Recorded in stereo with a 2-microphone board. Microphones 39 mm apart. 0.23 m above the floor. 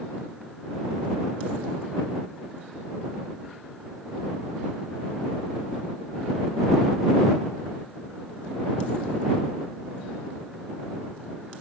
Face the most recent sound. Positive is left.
No sound to turn to.